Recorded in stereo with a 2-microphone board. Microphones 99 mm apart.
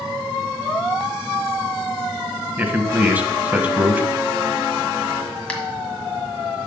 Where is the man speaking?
15° right (ahead or behind), 1.1 m.